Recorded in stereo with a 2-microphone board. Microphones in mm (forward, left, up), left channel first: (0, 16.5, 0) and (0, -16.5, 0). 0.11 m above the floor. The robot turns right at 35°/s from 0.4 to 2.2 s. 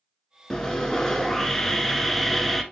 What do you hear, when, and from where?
0.5 s sawing: 25° left (ahead or behind), 0.6 m; by 2.6 s 10° left (ahead or behind), 0.6 m